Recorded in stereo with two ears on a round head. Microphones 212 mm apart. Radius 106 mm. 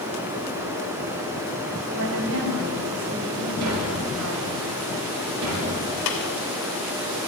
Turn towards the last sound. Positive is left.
turn(degrees=85)